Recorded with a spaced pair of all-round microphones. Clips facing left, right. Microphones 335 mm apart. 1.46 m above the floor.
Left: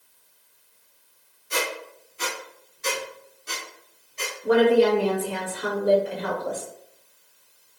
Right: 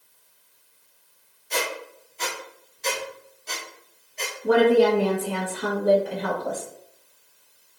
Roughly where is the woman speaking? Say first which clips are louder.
Even; right.